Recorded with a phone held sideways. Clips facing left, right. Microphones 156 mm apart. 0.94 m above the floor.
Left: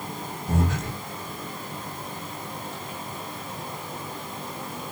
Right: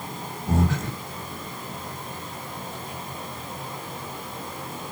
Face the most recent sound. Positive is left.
turn(degrees=-35)  # may be behind; listen again after turning